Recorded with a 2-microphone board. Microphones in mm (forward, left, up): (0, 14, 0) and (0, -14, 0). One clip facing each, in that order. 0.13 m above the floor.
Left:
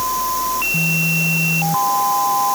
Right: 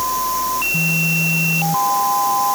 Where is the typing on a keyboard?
I don't hear typing on a keyboard.